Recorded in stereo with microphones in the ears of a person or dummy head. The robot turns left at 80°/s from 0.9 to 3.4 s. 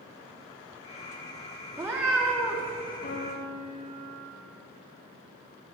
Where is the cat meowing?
15° right (ahead or behind), 1.0 m; by 2.7 s 10° left (ahead or behind), 1.0 m.